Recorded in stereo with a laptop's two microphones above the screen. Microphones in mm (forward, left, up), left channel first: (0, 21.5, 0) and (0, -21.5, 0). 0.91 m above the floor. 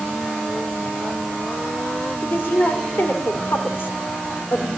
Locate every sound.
2.2 s a woman speaking: 75° left (ahead or behind), 2.5 m